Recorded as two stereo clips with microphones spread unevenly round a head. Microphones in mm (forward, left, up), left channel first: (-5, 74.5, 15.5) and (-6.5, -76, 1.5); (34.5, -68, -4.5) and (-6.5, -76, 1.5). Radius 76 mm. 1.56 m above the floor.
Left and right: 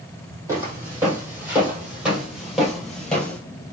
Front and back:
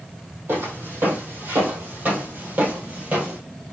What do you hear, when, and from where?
0.5 s footsteps: 165° right, 3 m; by 3.4 s 165° left, 2 m